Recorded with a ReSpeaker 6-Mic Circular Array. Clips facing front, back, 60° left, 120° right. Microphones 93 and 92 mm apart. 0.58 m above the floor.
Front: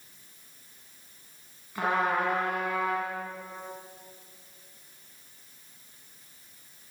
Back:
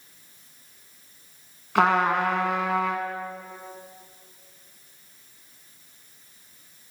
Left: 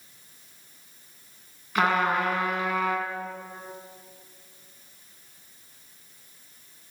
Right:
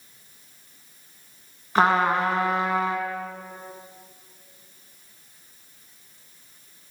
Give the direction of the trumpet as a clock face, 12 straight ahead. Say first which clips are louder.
Back 6 dB, right 4 dB; 6 o'clock.